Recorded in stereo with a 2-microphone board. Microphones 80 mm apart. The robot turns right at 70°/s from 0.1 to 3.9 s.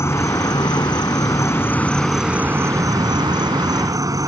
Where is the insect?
40° left; by 4.3 s 55° right.